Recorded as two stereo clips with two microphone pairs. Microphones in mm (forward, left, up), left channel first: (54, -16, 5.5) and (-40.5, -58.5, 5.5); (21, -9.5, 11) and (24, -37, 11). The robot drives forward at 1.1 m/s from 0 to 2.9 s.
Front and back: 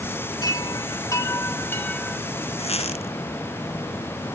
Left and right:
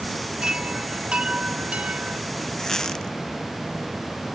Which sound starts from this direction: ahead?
A squeak, at 2.6 s.